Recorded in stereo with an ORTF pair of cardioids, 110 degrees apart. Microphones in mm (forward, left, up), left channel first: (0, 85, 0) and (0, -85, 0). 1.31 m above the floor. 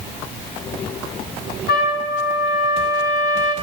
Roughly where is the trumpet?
Left.